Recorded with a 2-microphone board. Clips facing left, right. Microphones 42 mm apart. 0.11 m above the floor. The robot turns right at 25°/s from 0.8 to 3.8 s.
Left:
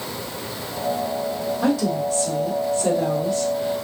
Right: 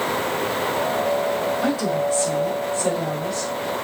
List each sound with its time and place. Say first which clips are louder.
1.6 s a woman speaking: even; 45° right, 1.7 m; by 3.9 s 10° left, 1.7 m